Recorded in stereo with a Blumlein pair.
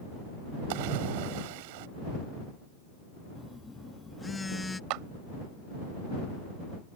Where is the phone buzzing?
10° left.